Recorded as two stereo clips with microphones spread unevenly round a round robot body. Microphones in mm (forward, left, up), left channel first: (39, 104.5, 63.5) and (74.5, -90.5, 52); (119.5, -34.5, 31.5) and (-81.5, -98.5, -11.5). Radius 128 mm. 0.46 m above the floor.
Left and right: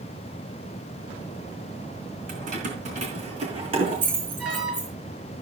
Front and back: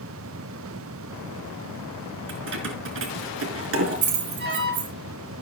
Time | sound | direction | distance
2.3 | keys jangling | 135° right | 4 m
4.4 | an alarm | 120° right | 7 m